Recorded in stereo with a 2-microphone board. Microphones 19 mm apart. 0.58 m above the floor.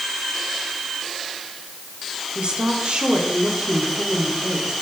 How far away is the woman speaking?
About 5.5 m.